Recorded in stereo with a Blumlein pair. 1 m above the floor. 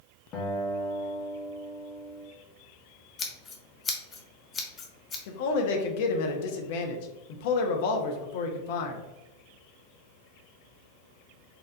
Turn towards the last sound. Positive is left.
turn(degrees=50)